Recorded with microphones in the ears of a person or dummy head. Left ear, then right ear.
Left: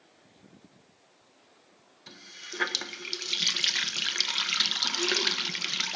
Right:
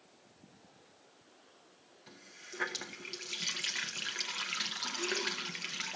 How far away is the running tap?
About 0.6 m.